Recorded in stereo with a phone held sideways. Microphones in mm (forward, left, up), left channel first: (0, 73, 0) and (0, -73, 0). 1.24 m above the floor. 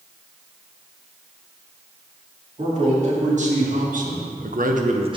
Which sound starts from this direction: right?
A man speaking, at 2.6 s.